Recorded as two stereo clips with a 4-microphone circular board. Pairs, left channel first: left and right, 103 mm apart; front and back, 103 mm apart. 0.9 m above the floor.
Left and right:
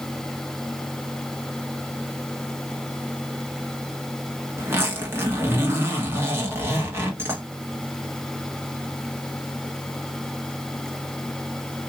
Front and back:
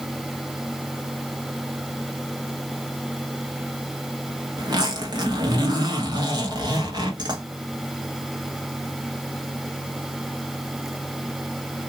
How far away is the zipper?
About 1.2 m.